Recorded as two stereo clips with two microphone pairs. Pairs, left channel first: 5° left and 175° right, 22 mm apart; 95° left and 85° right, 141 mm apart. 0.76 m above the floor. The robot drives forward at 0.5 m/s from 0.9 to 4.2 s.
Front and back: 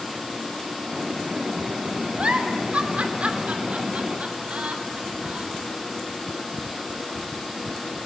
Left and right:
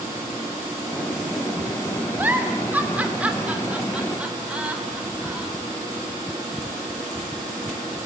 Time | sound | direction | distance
2.2 | a giggle | 165° right | 2.5 m